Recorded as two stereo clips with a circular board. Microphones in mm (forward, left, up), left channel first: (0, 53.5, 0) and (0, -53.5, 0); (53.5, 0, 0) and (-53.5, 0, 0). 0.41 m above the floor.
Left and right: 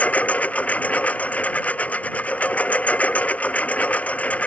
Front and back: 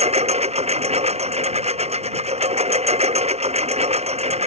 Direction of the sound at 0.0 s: 165° left.